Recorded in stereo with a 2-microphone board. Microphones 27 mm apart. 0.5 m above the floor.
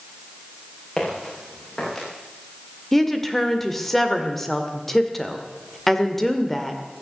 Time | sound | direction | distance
1.0 | footsteps | 30° left (ahead or behind) | 7 m
2.9 | a woman speaking | 10° left (ahead or behind) | 1.7 m